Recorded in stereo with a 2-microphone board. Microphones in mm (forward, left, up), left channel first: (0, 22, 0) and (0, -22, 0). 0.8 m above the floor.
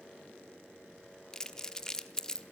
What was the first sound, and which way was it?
Crumpling, 15° left (ahead or behind).